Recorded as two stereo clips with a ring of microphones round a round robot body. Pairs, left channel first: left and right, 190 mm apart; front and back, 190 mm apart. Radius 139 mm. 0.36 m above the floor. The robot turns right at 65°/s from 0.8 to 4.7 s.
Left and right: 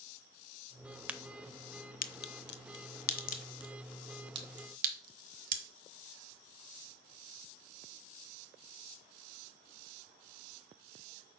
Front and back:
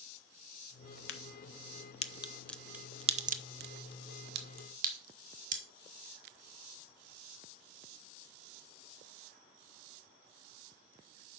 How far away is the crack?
About 0.8 m.